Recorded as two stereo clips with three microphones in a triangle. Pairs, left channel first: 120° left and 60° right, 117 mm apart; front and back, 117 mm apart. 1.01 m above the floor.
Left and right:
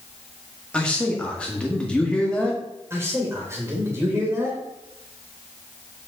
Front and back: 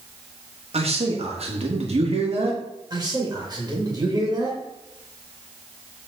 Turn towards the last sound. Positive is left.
turn(degrees=-125)